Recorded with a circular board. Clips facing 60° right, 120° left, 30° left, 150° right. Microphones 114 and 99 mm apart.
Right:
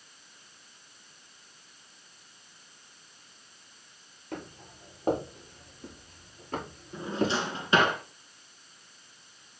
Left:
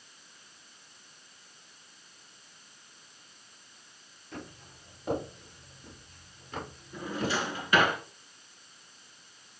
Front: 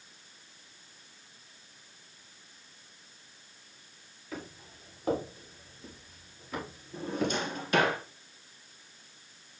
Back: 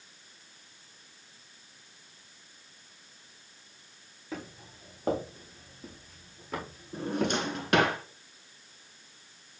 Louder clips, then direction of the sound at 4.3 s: Right 4 dB, back 2 dB; 90° right.